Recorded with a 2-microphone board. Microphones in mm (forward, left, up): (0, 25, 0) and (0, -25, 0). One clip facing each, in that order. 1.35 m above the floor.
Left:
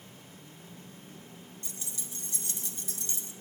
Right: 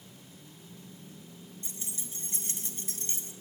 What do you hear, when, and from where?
1.6 s keys jangling: 30° right (ahead or behind), 1.5 m; by 3.3 s 45° right (ahead or behind), 2 m